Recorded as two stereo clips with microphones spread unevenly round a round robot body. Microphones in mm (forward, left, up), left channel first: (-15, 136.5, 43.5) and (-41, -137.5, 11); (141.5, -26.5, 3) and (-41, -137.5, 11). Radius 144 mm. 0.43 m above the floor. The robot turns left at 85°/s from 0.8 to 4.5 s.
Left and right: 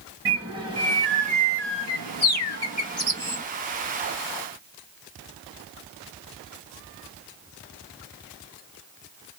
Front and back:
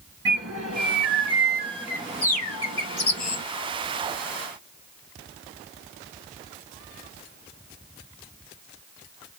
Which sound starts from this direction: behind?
A bird, at 0.2 s.